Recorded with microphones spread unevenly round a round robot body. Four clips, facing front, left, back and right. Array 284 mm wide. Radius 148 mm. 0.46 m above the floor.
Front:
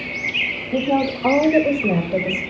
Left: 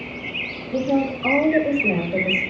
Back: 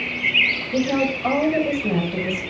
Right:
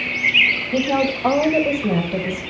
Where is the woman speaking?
15° right, 1.8 m; by 2.4 s straight ahead, 2.5 m.